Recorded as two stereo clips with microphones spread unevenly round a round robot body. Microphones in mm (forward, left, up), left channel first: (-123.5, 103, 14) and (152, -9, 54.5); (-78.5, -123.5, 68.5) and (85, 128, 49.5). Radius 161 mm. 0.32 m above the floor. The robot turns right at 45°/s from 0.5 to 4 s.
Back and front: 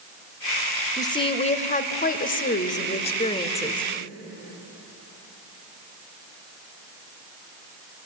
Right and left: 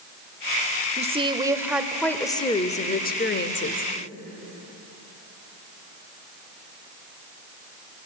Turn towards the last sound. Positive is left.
turn(degrees=-125)